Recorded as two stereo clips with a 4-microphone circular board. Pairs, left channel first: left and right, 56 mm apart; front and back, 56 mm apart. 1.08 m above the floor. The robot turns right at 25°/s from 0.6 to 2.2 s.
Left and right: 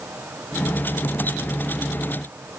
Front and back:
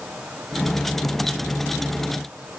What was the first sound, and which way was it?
Only background noise.